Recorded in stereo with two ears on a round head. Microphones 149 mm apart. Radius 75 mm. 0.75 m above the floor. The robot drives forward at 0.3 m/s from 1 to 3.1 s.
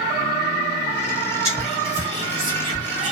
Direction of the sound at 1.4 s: 40° right (ahead or behind).